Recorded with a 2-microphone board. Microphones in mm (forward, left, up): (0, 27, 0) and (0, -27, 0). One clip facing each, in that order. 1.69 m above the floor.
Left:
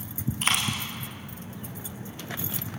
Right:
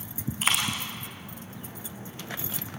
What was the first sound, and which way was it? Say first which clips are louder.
A dropped coin: even; centre (ahead or behind).